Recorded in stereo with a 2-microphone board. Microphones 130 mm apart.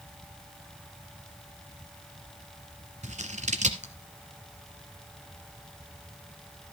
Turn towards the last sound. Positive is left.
turn(degrees=-60)  # may be behind; listen again after turning